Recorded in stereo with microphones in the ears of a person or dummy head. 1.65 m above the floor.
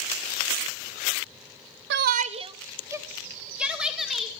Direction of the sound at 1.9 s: 70° right (ahead or behind).